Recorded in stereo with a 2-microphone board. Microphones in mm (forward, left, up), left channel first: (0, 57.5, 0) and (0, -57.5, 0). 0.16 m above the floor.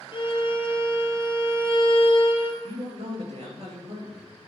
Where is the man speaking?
65° right (ahead or behind), 3.5 m.